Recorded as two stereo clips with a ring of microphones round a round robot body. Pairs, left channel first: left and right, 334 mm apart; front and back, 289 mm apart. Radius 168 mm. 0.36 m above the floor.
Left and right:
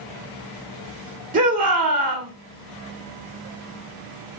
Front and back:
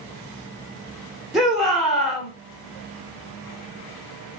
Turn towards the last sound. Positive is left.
turn(degrees=-90)